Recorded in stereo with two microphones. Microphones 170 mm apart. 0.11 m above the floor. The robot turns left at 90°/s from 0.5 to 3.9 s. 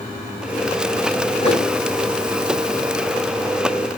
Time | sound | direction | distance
1.4 | a whoosh | 30° left (ahead or behind) | 1.0 m